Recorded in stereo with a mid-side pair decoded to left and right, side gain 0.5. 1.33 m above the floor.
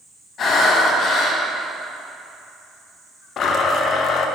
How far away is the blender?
About 0.7 m.